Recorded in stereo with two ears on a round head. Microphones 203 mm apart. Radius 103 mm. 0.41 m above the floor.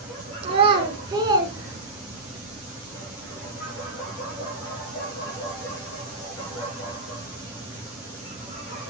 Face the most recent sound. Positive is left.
turn(degrees=-10)  # may be behind; listen again after turning